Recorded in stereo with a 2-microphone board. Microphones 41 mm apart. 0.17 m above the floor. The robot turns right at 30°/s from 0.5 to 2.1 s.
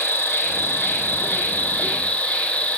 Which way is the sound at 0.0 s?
95° left.